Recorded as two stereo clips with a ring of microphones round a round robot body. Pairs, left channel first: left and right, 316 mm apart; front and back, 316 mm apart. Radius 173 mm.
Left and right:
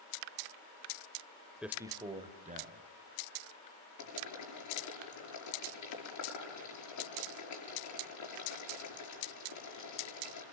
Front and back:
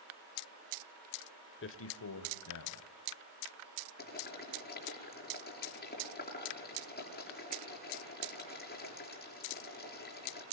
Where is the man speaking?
5° right, 1.5 m; by 2.9 s 30° right, 3 m.